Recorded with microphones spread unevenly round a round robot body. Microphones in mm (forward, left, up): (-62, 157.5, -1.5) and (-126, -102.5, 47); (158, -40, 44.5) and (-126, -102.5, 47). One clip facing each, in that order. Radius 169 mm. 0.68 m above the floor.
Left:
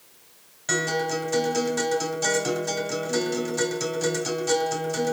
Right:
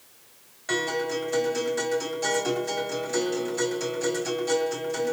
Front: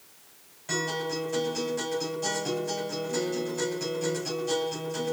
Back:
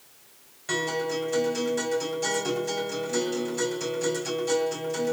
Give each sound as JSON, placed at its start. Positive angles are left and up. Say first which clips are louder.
{"t": 0.7, "sound": "a guitar", "louder": "left 1 dB, back 3 dB", "azimuth_deg": 120, "distance_m": 2.0}